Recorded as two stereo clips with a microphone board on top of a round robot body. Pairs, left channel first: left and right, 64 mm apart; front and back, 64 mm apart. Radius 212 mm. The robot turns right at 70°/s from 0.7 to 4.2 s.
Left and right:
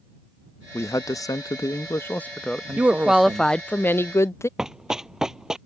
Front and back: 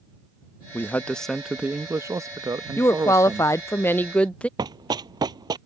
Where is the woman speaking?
35° right; by 4.5 s 65° left.